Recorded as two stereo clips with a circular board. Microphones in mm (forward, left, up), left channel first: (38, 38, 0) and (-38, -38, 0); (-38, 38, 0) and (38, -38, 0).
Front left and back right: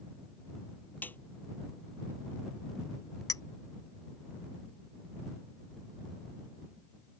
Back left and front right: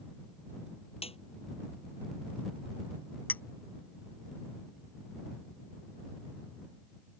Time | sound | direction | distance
1.0 | a snare drum | 120° left | ?
3.3 | a clink | 75° left | ?